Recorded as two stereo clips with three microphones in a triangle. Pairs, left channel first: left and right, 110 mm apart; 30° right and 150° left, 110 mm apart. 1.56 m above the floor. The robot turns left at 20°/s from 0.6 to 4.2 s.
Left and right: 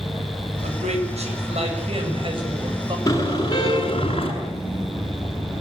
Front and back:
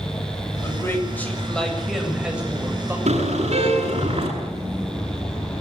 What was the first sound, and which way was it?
A man speaking, 95° right.